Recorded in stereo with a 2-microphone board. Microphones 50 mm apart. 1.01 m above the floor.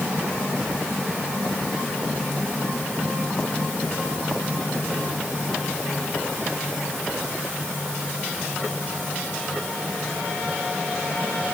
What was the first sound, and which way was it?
Only background noise.